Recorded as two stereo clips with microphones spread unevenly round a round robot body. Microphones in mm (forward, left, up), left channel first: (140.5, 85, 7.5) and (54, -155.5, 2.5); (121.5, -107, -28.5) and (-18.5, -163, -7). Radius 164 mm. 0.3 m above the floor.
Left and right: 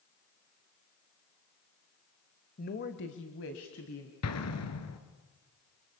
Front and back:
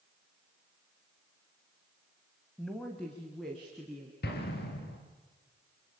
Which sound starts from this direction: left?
A woman speaking, at 2.6 s.